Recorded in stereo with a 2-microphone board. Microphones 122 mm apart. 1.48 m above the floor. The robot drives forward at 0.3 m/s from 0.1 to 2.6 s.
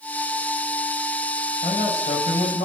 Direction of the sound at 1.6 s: 55° left (ahead or behind).